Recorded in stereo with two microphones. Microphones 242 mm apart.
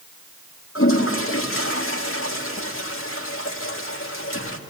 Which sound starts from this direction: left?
A toilet flushing, at 0.8 s.